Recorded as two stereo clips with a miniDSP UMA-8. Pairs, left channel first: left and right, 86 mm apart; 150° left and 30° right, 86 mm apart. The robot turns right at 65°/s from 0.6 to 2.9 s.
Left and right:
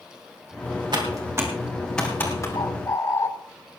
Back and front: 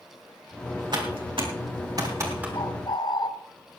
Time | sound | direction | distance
0.9 | typing on a keyboard | 60° right | 3.5 m
2.5 | a bird | 120° left | 0.8 m